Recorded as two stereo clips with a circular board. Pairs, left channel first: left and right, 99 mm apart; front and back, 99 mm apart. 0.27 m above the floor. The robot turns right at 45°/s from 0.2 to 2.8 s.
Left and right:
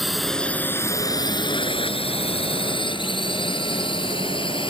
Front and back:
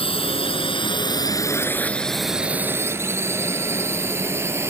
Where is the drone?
Straight ahead; by 4.7 s 115° left.